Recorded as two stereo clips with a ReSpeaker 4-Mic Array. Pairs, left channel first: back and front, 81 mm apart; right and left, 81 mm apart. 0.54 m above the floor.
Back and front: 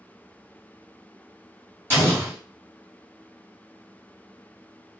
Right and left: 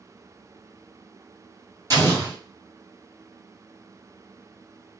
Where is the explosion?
55° left, 1.4 m.